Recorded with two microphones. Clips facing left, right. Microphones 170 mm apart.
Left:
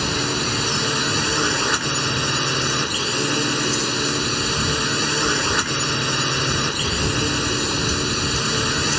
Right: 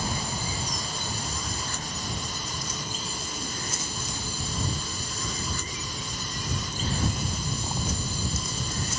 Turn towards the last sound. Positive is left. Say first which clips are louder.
# left 9 dB
turn(degrees=80)